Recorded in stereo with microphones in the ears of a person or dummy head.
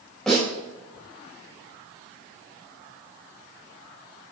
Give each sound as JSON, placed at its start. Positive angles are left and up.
{"t": 0.3, "sound": "a snare drum", "side_deg": 0, "distance_m": 6.0}